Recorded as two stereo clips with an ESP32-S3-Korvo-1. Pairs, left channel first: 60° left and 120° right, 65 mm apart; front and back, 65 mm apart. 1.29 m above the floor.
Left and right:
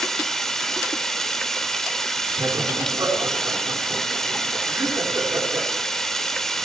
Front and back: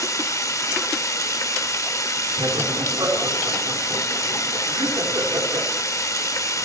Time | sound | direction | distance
0.0 | running water | 20° right | 1.6 m
2.4 | laughter | 160° right | 3.5 m